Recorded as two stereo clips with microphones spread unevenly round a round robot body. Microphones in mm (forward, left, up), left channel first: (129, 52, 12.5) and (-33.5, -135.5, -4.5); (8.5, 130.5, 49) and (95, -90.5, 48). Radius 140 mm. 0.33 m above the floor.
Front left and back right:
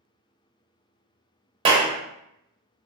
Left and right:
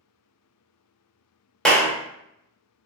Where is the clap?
165° right, 0.7 m.